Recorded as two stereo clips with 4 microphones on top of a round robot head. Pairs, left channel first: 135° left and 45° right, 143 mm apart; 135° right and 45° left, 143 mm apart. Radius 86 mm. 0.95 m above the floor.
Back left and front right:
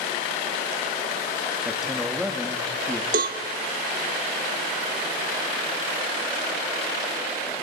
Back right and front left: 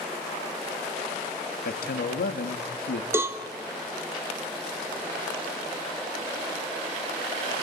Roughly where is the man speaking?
Behind right.